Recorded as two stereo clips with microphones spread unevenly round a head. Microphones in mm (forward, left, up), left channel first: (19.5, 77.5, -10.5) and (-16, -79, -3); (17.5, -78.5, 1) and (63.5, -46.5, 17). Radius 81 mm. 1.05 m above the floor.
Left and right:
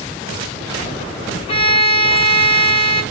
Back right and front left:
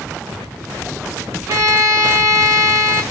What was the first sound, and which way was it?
A violin, 20° left.